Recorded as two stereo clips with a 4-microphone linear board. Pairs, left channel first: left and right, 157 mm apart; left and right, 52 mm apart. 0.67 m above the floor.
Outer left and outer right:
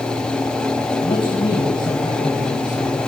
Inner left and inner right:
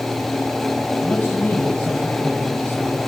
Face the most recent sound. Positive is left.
turn(degrees=20)  # may be behind; listen again after turning